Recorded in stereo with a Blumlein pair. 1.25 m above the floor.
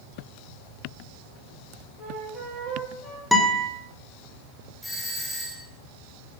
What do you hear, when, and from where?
2.0 s a flute: 10° left, 9 m
3.3 s a guitar: straight ahead, 3.5 m
4.8 s a doorbell: straight ahead, 4 m